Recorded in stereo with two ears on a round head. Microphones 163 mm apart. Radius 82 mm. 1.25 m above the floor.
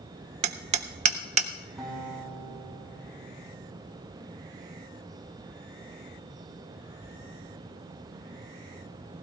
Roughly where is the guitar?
Centre.